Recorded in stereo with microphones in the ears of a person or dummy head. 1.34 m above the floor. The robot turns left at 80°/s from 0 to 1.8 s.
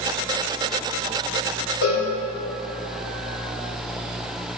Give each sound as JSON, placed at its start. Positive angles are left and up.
{"t": 1.8, "sound": "a cowbell", "side_deg": 50, "distance_m": 3.0}